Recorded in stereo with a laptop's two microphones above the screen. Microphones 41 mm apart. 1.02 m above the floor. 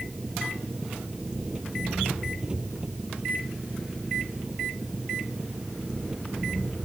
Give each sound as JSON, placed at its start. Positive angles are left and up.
{"t": 0.0, "sound": "an engine running", "side_deg": -20}